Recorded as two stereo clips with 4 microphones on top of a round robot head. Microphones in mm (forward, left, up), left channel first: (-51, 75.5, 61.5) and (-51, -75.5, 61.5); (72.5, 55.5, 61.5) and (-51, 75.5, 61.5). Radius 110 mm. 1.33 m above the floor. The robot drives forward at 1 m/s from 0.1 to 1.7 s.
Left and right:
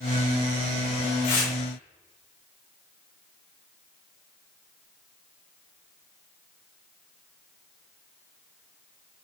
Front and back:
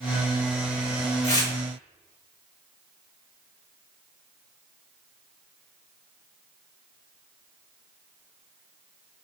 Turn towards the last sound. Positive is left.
turn(degrees=55)